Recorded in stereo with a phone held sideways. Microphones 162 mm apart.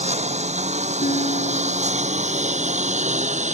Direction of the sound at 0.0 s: 40° right (ahead or behind).